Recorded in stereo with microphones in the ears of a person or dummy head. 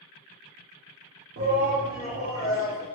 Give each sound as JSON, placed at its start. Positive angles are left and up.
{"t": 1.4, "sound": "a shout", "side_deg": -45, "distance_m": 0.5}